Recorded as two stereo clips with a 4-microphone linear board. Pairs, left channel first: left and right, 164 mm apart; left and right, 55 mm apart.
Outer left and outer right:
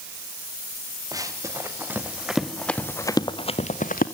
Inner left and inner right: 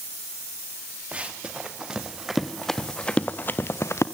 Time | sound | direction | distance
1.1 | running footsteps | 20° right (ahead or behind) | 4 m